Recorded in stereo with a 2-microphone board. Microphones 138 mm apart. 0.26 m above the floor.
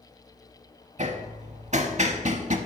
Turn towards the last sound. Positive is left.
turn(degrees=-60)  # may be behind; listen again after turning